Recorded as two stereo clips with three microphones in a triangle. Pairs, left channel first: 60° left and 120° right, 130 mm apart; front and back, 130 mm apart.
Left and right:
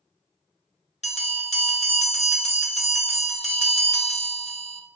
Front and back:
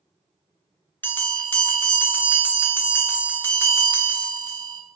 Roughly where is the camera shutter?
I don't hear a camera shutter.